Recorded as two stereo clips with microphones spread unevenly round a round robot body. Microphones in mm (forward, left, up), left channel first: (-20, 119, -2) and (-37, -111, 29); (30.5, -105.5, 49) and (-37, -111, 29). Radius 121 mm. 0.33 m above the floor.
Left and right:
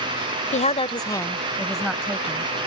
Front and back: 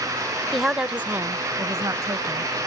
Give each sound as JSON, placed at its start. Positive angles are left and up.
{"t": 0.5, "sound": "a woman speaking", "azimuth_deg": 115}